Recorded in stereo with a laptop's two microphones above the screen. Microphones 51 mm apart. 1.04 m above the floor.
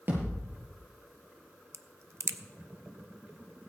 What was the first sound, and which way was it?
A thud, 45° right (ahead or behind).